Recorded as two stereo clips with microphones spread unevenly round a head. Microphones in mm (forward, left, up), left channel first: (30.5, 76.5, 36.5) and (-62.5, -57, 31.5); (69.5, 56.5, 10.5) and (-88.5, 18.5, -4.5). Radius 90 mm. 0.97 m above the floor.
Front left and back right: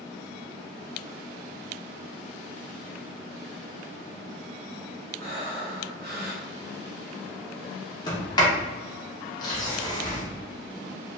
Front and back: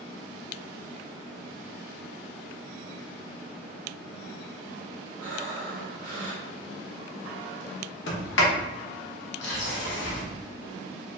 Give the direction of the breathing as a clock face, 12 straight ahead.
5 o'clock.